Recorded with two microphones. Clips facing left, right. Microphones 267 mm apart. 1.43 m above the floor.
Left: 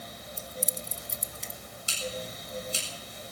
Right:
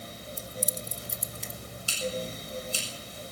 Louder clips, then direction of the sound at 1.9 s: Right 4 dB; 20° left (ahead or behind).